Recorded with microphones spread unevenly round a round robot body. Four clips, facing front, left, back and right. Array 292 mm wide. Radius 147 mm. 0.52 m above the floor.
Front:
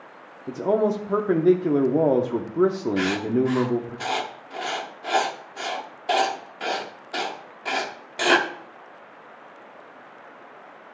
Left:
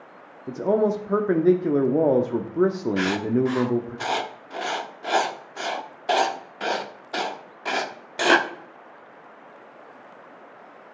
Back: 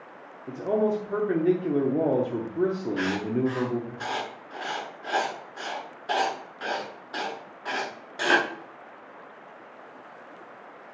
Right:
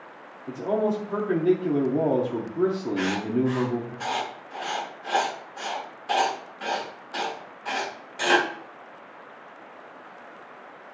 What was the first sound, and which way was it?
A man speaking, 25° left.